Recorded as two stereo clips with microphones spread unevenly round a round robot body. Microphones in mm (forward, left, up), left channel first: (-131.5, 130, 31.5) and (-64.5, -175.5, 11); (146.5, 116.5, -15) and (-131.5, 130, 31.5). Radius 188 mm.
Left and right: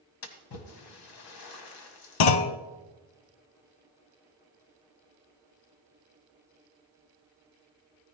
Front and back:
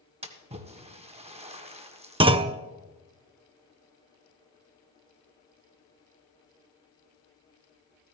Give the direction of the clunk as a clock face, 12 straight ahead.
8 o'clock.